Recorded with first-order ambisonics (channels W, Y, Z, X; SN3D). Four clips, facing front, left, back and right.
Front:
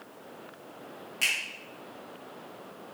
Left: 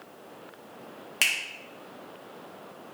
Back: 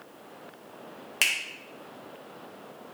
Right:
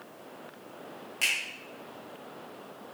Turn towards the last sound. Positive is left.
turn(degrees=140)